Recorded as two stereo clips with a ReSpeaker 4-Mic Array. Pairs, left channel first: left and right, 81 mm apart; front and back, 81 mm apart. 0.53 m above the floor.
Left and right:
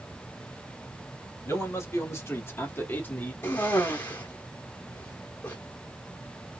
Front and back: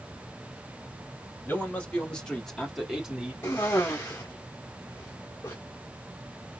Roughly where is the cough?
Ahead left.